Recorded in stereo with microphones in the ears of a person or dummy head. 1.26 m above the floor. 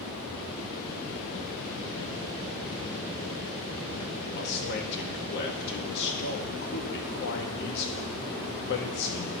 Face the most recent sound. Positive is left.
turn(degrees=60)  # may be behind; listen again after turning